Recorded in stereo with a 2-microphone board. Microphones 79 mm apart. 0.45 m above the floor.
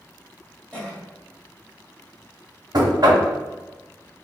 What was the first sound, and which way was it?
A cough, 10° left (ahead or behind).